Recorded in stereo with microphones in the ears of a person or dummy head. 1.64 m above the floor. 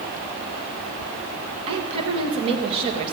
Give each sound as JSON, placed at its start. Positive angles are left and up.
{"t": 1.7, "sound": "a woman speaking", "side_deg": -35, "distance_m": 2.5}